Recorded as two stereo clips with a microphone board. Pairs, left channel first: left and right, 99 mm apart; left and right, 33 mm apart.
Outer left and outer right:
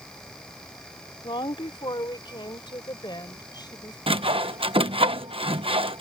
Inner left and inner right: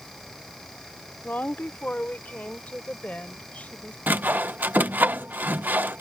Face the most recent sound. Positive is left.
turn(degrees=-65)  # may be behind; listen again after turning